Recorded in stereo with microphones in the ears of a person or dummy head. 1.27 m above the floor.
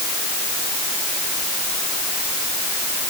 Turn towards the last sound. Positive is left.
No sound to turn to.